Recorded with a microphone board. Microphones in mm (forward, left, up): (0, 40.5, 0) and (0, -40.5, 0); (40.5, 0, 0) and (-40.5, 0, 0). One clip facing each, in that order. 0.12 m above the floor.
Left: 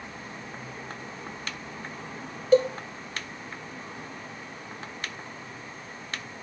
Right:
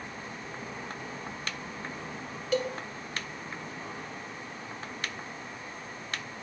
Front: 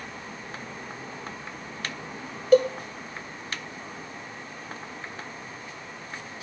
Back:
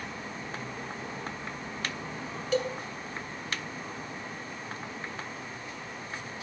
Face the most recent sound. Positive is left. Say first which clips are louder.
# left 9 dB, front 11 dB
turn(degrees=40)